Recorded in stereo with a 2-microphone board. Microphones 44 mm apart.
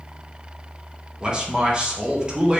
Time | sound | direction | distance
1.2 | a man speaking | 20° right (ahead or behind) | 0.7 m